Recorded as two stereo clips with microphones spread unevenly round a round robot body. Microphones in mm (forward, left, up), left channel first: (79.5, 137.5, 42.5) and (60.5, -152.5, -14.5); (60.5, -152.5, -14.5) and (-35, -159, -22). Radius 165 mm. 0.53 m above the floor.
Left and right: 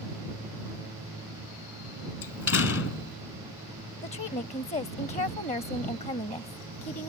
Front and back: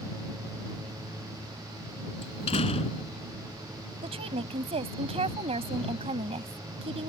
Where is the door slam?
45° left.